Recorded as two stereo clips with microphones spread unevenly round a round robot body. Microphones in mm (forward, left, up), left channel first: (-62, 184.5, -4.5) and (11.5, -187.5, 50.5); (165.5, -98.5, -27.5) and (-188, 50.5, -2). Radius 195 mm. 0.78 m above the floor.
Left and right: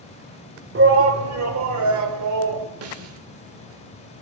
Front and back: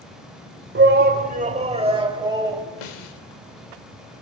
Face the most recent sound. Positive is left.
turn(degrees=-20)